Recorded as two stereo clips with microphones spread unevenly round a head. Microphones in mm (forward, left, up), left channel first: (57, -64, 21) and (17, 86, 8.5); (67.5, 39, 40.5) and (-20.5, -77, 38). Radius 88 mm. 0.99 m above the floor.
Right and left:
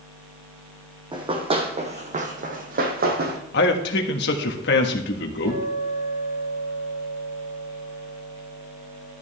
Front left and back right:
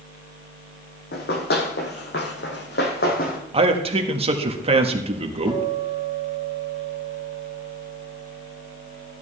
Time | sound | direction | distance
1.1 | running footsteps | 45° left | 2.5 m
3.5 | a man speaking | 80° right | 1.5 m
5.5 | a guitar | 95° left | 7 m